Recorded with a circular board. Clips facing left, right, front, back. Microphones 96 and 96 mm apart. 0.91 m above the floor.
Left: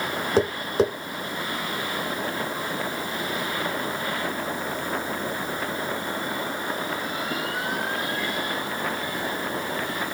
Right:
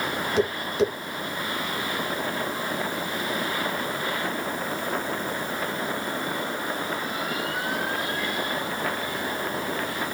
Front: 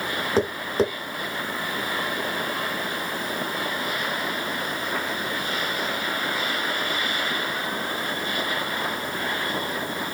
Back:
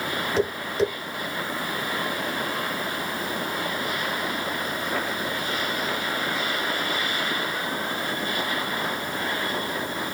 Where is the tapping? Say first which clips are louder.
Left 2 dB, front 2 dB; 45° left, 1.5 m.